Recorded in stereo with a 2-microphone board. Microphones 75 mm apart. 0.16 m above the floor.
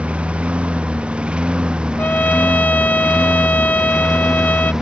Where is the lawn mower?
15° right (ahead or behind); by 4.8 s 10° right (ahead or behind).